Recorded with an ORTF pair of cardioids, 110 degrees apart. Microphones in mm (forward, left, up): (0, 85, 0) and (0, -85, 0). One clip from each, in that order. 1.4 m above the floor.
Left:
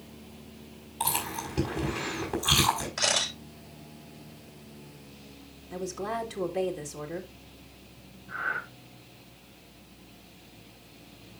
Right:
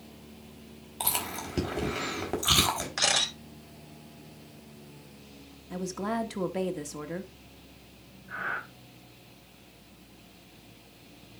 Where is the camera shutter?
35° right, 6.5 m.